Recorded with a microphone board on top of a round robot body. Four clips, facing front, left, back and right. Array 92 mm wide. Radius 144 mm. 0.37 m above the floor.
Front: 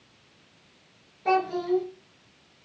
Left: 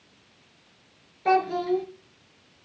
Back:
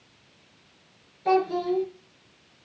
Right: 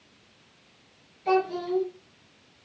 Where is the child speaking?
80° left, 5.5 m.